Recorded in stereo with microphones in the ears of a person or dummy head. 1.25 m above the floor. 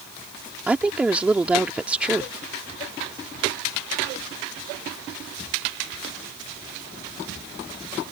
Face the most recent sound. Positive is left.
turn(degrees=-5)  # may be behind; listen again after turning